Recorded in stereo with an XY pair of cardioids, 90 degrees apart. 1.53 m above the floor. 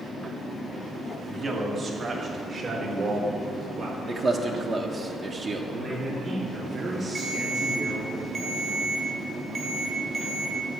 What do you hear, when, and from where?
1.3 s a man speaking: 40° right, 2.5 m; by 4.6 s 70° right, 5 m
4.1 s a man speaking: 45° right, 1.2 m
5.7 s a man speaking: 35° right, 3 m
7.2 s a ringtone: 50° right, 4 m